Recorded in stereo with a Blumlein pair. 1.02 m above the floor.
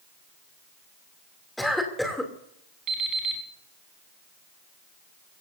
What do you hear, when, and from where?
1.6 s a cough: straight ahead, 3 m
2.9 s an alarm clock: 30° right, 4.5 m